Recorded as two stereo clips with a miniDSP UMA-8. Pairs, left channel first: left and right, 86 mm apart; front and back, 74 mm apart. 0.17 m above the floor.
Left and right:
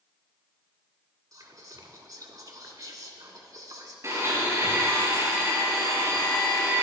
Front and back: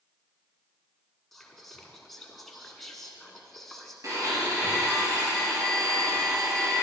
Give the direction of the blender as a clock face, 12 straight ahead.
5 o'clock.